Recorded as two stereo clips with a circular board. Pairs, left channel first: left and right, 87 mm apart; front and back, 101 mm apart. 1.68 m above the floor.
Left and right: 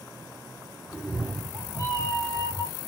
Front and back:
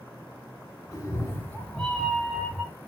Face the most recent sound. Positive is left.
turn(degrees=-110)